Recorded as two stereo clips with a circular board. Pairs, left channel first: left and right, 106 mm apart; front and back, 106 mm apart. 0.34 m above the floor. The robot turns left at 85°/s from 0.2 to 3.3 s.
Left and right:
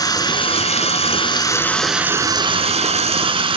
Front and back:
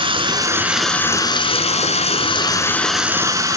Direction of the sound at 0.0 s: 140° left.